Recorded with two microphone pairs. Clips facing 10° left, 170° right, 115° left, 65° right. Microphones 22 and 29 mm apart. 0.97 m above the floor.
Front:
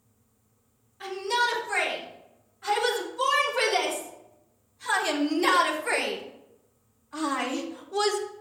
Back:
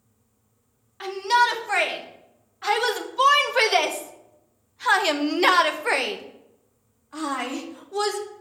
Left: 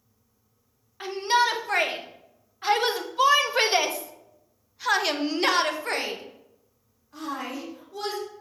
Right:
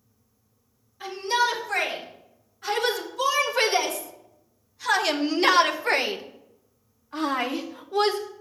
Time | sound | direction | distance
1.0 | a shout | 150° left | 2.5 m